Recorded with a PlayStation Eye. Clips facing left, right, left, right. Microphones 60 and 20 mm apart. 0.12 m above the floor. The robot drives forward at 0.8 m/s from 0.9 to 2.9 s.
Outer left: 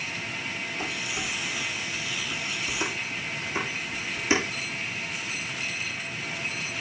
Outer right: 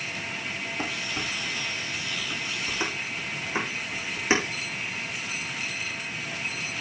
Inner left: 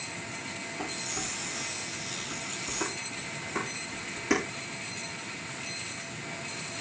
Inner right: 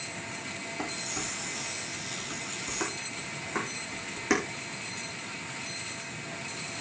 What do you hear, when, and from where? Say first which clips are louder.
0.8 s dishes clattering: outer right 1 dB, even; 40° right (ahead or behind), 4.5 m; by 4.4 s 30° right (ahead or behind), 5.5 m